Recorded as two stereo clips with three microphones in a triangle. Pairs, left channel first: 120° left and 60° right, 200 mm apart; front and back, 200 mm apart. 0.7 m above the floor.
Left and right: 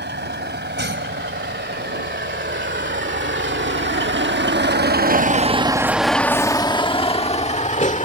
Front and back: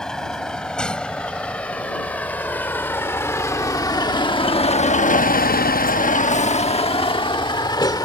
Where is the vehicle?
85° right; by 8.1 s 70° left.